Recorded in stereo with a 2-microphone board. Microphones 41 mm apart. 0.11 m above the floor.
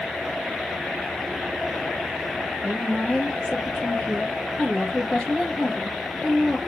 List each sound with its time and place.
2.6 s a woman speaking: 20° left (ahead or behind), 2 m